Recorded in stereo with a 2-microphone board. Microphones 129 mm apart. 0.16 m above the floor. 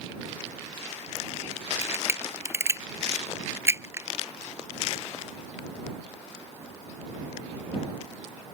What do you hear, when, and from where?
1.8 s a camera shutter: 20° right (ahead or behind)